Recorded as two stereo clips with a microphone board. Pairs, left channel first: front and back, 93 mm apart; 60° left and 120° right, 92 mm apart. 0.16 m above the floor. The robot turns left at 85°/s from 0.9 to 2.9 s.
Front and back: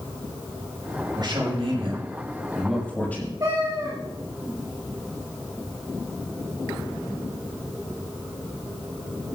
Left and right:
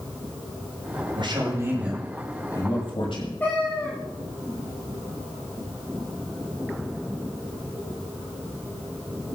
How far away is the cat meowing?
About 6.5 m.